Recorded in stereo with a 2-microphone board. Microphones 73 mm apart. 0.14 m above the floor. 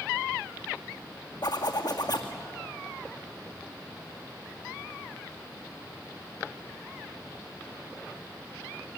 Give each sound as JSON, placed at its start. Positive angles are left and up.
{"t": 1.4, "sound": "a zipper", "side_deg": 70, "distance_m": 2.0}